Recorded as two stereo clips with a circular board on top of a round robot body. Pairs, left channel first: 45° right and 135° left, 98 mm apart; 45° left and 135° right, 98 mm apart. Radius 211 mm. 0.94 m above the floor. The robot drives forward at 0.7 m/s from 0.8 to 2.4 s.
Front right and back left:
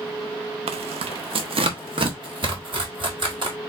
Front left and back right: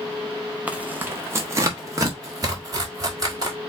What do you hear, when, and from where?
0.7 s tearing paper: 150° left, 0.6 m; by 3.6 s 170° left, 1.6 m